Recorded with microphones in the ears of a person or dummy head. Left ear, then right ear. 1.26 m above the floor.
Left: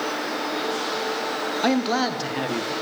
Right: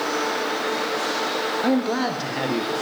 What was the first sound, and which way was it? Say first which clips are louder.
A man speaking: left 4 dB; 25° left (ahead or behind).